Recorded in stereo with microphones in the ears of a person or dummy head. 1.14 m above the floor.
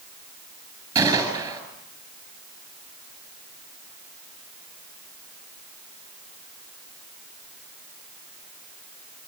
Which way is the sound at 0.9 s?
20° right (ahead or behind).